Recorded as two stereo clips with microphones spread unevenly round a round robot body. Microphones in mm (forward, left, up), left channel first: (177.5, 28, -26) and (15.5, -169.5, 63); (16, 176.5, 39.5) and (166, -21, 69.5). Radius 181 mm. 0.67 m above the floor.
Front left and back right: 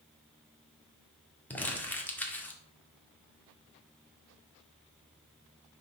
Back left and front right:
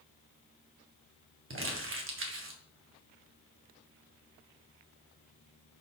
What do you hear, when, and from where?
1.5 s crumpling: 20° right, 1.8 m